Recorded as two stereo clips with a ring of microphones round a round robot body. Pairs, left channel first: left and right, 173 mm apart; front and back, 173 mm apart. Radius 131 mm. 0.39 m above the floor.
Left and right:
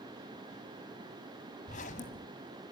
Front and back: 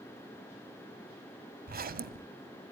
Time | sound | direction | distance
1.7 | a zipper | 145° left | 1.3 m